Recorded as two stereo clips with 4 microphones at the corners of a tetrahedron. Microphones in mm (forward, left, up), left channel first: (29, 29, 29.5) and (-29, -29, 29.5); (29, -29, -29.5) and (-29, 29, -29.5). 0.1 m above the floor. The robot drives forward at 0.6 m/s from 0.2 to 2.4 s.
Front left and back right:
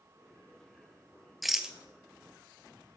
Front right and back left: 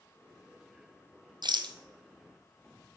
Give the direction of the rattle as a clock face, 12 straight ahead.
8 o'clock.